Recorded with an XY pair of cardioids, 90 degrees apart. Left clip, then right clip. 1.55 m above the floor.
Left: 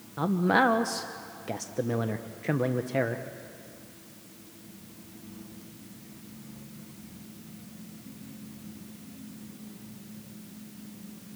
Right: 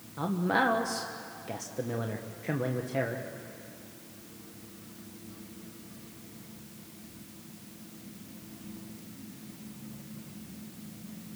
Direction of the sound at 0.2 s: 40° left.